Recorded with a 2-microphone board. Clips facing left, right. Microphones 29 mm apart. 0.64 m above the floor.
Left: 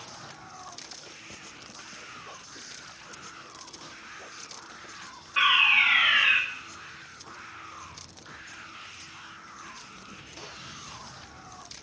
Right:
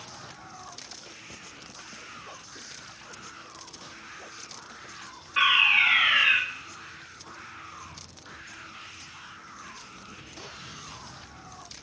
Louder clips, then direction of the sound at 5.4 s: Even; centre (ahead or behind).